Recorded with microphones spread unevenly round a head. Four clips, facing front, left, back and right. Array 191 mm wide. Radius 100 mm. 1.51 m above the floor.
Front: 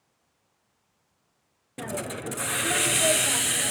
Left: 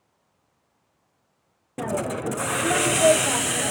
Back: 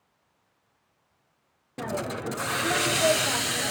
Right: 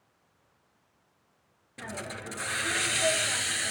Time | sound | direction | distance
1.8 | a hiss | 95° left | 0.6 m